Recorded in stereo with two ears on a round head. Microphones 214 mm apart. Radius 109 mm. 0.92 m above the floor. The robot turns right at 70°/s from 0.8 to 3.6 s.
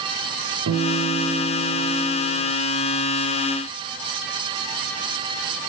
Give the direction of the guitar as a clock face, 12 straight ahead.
2 o'clock.